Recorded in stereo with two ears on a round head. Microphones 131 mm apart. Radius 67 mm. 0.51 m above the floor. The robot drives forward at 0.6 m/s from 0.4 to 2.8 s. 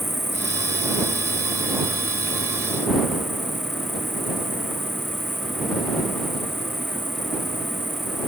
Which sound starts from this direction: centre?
An insect, at 0.0 s.